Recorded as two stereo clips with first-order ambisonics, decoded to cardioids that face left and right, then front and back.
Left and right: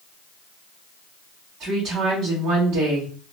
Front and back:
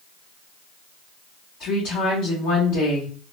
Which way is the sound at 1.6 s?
40° right.